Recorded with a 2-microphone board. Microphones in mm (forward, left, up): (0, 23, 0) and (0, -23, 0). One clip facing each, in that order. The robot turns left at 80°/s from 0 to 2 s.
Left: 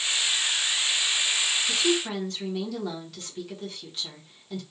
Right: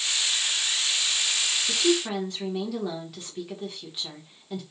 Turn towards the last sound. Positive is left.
turn(degrees=-15)  # may be behind; listen again after turning